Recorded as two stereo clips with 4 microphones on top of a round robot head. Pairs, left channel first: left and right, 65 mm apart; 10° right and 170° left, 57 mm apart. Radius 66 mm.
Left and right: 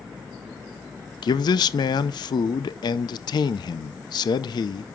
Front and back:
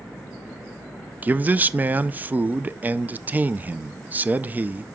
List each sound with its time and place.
1.2 s a man speaking: 110° left, 0.5 m